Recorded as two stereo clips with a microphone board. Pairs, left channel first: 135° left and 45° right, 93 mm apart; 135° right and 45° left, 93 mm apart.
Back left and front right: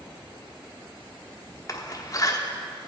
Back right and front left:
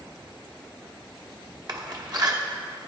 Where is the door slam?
85° left, 0.9 m.